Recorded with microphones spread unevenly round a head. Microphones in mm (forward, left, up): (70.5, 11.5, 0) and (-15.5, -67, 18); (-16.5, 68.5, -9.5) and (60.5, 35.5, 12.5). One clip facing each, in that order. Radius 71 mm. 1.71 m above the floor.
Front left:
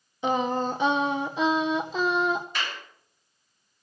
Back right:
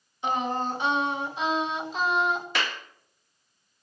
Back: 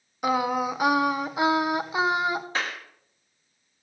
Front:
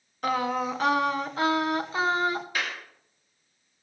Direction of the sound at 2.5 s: 125° right.